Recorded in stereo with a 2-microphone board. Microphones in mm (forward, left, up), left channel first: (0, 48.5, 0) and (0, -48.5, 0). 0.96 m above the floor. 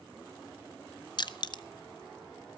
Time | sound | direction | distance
1.2 | crushing | 50° left (ahead or behind) | 0.7 m